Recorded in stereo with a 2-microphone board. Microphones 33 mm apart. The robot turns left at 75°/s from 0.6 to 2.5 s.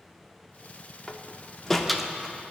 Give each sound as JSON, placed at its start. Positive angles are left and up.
{"t": 1.1, "sound": "a door slam", "side_deg": 25, "distance_m": 0.6}